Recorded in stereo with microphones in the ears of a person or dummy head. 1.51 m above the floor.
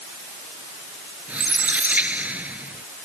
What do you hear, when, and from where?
1.3 s a squeak: 10° right (ahead or behind)